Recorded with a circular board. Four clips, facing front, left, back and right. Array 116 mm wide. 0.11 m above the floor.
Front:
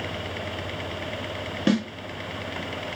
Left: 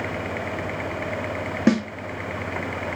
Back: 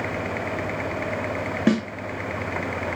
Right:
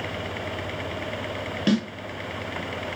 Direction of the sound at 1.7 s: 115° left.